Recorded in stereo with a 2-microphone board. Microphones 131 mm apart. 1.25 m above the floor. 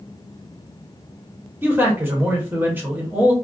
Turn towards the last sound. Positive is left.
turn(degrees=-15)  # may be behind; listen again after turning